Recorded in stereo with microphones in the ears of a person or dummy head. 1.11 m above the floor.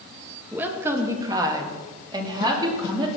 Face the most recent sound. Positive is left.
turn(degrees=-20)  # may be behind; listen again after turning